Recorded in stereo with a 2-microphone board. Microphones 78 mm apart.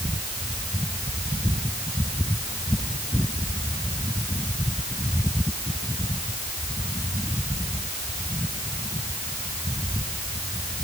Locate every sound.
Only background noise.